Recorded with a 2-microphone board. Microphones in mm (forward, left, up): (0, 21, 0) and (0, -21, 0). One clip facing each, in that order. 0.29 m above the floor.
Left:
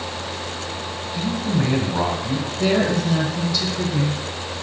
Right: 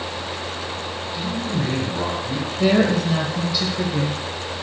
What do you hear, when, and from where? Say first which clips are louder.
1.1 s a man speaking: left 3 dB; 40° left (ahead or behind), 1.9 m
2.6 s a woman speaking: right 2 dB; 10° right (ahead or behind), 0.9 m